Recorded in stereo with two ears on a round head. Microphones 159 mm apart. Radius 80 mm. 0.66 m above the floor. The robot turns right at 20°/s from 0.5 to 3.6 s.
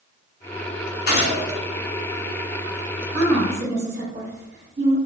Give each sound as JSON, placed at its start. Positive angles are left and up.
{"t": 1.1, "sound": "a gunshot", "side_deg": 60, "distance_m": 0.7}
{"t": 3.1, "sound": "a woman speaking", "side_deg": -40, "distance_m": 0.8}